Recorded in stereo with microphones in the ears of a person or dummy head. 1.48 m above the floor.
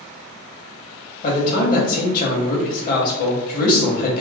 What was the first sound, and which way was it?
A man speaking, 50° left (ahead or behind).